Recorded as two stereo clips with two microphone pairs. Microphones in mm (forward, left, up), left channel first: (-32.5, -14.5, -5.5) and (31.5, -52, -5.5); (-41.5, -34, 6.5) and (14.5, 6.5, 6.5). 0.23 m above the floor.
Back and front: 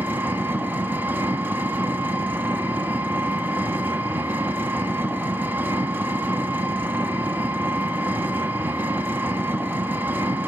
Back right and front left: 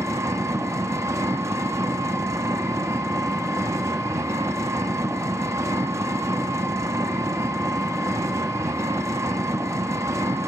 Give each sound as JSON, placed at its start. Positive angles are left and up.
{"t": 0.0, "sound": "an engine running", "azimuth_deg": 25, "distance_m": 0.8}